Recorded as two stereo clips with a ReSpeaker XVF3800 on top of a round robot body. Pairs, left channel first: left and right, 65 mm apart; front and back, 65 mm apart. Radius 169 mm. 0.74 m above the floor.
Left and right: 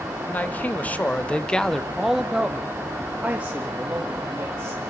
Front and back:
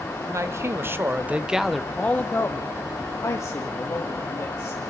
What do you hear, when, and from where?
0.2 s a man speaking: 150° left, 1.7 m; by 4.8 s 25° right, 3 m